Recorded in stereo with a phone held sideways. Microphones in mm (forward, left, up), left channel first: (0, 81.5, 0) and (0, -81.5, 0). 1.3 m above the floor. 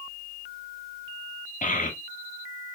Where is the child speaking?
55° left (ahead or behind), 1.4 m.